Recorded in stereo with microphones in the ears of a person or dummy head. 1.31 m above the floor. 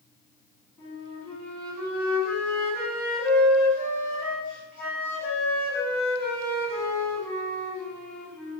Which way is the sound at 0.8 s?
10° left (ahead or behind).